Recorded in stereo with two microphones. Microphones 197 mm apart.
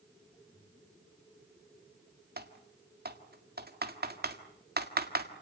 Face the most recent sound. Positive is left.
turn(degrees=-55)  # may be behind; listen again after turning